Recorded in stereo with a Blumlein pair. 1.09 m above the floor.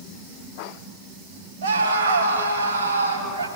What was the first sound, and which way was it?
A scream, 60° right.